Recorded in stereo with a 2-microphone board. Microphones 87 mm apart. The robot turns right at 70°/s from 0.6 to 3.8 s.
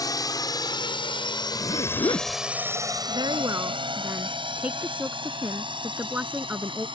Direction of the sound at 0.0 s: 45° left (ahead or behind).